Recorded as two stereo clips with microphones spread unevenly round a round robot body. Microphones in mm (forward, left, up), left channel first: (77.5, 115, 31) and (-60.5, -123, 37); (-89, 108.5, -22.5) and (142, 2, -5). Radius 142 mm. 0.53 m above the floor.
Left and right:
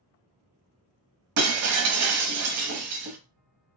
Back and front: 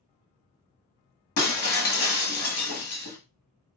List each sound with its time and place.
1.4 s breaking glass: 160° right, 1.1 m